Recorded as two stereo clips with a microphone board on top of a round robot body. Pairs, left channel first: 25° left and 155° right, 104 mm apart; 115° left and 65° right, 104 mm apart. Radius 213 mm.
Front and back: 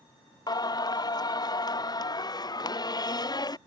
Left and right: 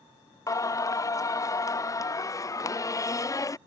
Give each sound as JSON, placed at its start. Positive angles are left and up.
{"t": 0.5, "sound": "singing", "azimuth_deg": 60}